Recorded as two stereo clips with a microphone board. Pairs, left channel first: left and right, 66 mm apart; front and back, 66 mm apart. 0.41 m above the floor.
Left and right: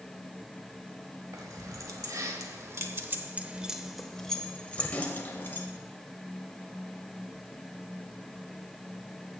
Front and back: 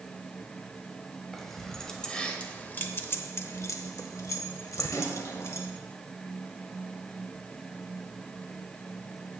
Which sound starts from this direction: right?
Keys jangling, at 1.3 s.